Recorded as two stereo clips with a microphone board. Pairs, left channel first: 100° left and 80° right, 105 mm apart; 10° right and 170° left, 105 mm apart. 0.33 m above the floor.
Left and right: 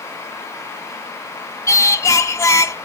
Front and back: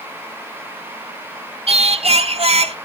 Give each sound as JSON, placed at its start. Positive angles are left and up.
{"t": 1.7, "sound": "singing", "azimuth_deg": 160, "distance_m": 0.6}